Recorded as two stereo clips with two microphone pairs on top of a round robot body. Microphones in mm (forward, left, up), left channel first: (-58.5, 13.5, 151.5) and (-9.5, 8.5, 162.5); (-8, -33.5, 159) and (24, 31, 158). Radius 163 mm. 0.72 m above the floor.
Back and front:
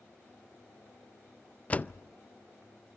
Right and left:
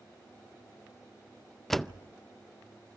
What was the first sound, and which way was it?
A door slam, 160° left.